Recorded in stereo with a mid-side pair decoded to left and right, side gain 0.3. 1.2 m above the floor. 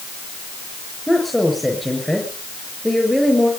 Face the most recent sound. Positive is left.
turn(degrees=10)